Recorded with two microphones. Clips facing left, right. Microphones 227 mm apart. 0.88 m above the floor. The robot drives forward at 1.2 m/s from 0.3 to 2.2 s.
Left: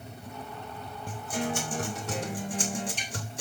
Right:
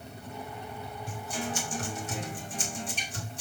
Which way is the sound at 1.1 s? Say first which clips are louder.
Left 5 dB; 45° left (ahead or behind).